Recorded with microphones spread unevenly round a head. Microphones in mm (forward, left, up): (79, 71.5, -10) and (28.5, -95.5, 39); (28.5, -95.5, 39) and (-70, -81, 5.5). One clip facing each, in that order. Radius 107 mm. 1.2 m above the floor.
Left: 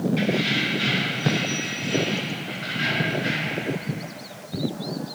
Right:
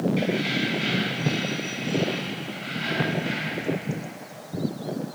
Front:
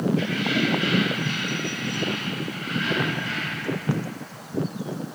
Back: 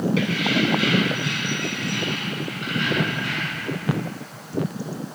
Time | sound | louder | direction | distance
0.2 | keys jangling | left 1 dB, back 2 dB | 165° left | 7 m